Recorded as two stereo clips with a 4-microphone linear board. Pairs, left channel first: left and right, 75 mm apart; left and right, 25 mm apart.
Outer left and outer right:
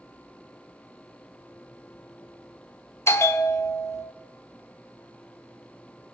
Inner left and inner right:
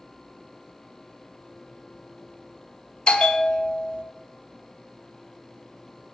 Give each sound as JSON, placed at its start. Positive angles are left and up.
{"t": 3.1, "sound": "a bell", "side_deg": 35, "distance_m": 1.0}